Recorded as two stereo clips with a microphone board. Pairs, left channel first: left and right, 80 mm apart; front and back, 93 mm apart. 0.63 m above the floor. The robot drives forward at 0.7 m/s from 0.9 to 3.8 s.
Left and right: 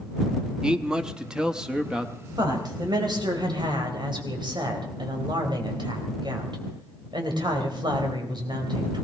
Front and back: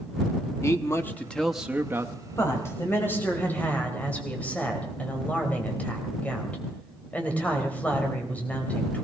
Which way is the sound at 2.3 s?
60° right.